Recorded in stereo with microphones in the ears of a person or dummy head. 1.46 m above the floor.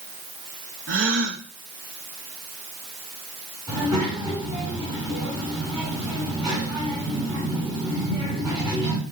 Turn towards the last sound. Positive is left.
turn(degrees=-15)  # may be behind; listen again after turning